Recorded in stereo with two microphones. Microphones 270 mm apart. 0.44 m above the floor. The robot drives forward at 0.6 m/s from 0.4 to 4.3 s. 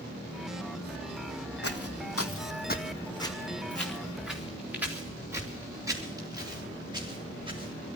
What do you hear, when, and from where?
1.6 s footsteps: 65° left (ahead or behind), 1.4 m; by 7.7 s 20° right (ahead or behind), 6 m